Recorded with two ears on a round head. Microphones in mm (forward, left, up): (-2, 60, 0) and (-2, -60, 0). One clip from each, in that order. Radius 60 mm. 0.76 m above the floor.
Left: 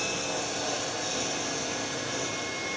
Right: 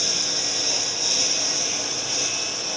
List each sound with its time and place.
0.0 s a lawn mower: 75° right (ahead or behind)